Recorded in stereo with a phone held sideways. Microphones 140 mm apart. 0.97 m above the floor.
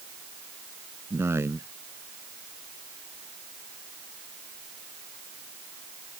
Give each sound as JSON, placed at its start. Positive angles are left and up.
{"t": 1.1, "sound": "a man speaking", "side_deg": -20}